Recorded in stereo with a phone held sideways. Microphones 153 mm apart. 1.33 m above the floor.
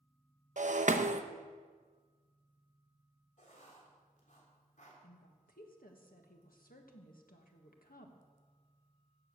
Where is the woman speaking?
80° left, 1.6 m.